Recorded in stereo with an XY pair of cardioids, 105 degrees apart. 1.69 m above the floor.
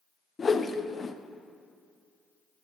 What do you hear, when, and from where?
0.4 s a whoosh: 30° left, 0.5 m